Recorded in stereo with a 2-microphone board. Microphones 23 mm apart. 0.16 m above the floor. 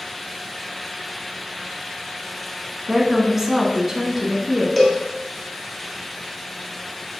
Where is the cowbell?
Centre (ahead or behind), 1.6 m.